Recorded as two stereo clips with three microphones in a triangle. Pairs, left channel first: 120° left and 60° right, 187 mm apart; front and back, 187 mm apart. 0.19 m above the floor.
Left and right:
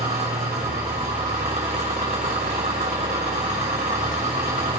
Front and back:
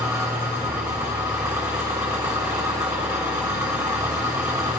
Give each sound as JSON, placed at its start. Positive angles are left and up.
{"t": 0.0, "sound": "an engine running", "azimuth_deg": -110, "distance_m": 3.0}